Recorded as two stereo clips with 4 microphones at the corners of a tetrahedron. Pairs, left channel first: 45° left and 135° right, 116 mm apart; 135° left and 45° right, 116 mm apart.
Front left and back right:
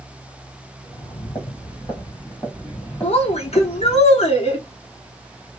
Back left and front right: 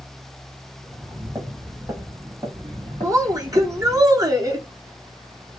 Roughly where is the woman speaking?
Ahead.